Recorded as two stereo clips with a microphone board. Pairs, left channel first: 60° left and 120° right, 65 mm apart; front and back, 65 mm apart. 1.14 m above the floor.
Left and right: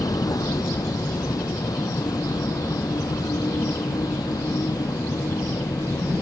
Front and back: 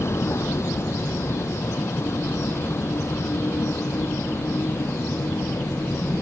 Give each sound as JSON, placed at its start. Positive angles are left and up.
{"t": 0.0, "sound": "a vehicle", "azimuth_deg": 45}